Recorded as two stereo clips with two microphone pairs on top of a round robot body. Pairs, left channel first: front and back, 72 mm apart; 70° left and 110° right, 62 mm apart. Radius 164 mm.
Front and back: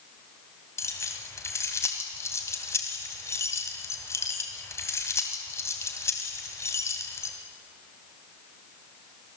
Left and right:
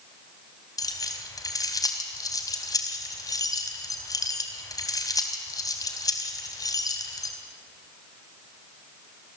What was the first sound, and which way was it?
Keys jangling, 50° left.